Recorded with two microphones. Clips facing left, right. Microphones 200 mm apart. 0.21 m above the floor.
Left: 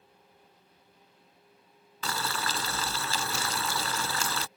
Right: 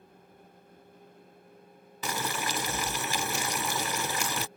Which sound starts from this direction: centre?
Boiling, at 2.0 s.